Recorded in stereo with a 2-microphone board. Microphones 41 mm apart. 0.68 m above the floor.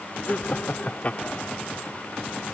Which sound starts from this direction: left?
Laughter, at 0.3 s.